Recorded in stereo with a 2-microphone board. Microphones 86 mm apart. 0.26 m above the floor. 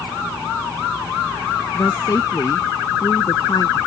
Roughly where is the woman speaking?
Left.